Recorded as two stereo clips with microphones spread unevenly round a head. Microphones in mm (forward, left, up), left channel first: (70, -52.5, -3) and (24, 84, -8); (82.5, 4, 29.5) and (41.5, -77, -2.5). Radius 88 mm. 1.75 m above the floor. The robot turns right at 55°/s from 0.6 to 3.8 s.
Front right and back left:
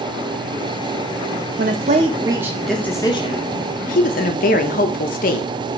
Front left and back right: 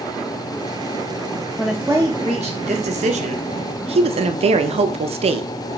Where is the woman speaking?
140° left, 0.5 m; by 5.5 s 95° right, 0.5 m.